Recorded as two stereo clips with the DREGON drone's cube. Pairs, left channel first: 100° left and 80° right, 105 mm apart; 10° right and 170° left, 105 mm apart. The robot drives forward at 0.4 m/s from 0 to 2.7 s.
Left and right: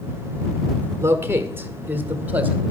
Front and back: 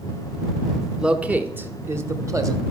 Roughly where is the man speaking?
Behind right.